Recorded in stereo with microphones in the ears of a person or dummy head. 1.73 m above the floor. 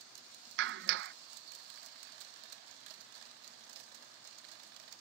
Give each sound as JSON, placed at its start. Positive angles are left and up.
{"t": 0.6, "sound": "a clap", "side_deg": -75}